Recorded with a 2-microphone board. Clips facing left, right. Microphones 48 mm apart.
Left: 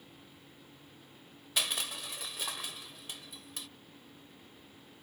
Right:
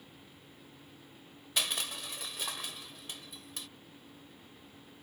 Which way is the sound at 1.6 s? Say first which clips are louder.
Even; 5° left (ahead or behind).